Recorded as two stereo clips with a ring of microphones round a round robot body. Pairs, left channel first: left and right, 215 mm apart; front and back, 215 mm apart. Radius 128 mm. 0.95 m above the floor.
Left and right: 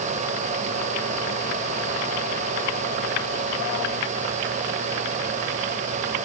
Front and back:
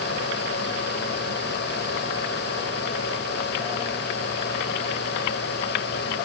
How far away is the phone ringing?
I don't hear a phone ringing.